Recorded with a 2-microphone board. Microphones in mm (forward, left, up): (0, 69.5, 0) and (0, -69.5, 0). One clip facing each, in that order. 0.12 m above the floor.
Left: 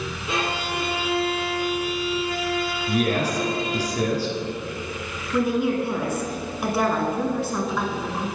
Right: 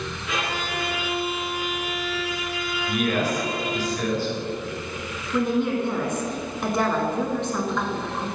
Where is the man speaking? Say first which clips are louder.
Left 1 dB; 40° left (ahead or behind), 1.7 m.